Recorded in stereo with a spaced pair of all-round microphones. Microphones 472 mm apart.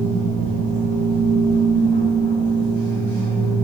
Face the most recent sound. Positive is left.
turn(degrees=70)  # may be behind; listen again after turning